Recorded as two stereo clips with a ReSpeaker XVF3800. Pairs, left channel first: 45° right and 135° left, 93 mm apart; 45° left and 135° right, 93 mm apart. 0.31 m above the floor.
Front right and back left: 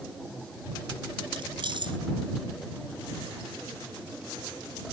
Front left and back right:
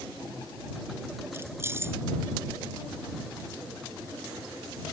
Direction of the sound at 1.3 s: 160° left.